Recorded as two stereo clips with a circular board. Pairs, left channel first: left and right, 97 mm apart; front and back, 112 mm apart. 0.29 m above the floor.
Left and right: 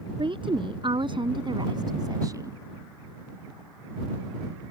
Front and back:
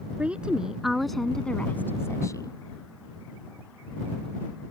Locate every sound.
0.2 s a woman speaking: 100° right; by 2.6 s 40° right